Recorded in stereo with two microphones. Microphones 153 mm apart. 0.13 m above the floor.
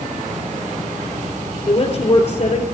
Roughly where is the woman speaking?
Left.